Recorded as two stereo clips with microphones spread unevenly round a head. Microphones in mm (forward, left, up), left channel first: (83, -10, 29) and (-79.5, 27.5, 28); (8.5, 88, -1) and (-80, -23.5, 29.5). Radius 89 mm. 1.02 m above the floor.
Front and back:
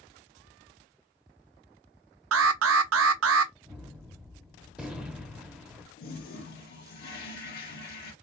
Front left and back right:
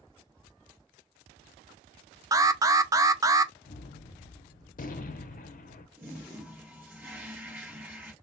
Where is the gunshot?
80° left, 0.8 m.